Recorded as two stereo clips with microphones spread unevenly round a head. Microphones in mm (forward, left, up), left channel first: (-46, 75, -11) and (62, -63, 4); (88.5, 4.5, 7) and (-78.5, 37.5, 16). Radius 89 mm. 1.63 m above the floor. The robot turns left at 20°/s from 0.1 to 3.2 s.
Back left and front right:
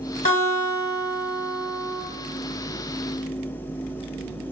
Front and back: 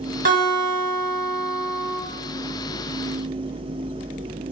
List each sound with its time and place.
0.2 s a guitar: 170° left, 1.7 m; by 2.0 s 135° left, 1.7 m